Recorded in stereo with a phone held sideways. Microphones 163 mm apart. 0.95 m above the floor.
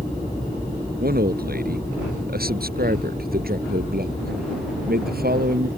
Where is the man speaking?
60° right (ahead or behind); by 5.7 s 65° right (ahead or behind).